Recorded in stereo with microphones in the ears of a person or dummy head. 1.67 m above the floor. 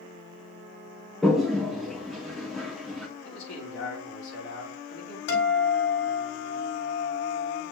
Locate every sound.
1.2 s a toilet flushing: centre (ahead or behind), 1.0 m
3.2 s a man speaking: 75° left (ahead or behind), 3 m
5.3 s a guitar: 70° left (ahead or behind), 4.5 m